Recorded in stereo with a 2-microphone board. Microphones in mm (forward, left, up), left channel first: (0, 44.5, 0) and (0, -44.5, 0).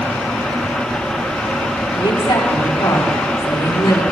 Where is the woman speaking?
80° left, 7 m; by 4.0 s 75° left (ahead or behind), 6 m.